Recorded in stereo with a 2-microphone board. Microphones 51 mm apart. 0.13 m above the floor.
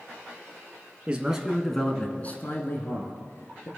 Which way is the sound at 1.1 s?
20° right (ahead or behind).